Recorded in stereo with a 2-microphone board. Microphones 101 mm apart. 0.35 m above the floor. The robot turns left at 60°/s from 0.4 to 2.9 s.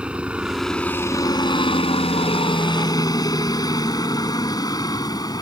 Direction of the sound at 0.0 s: 10° right (ahead or behind).